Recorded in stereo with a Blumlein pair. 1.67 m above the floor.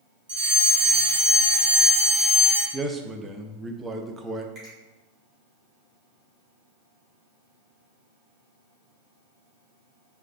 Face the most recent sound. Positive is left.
turn(degrees=-25)